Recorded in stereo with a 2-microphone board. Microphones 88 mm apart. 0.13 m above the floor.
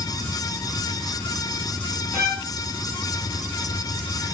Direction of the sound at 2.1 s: 30° left (ahead or behind).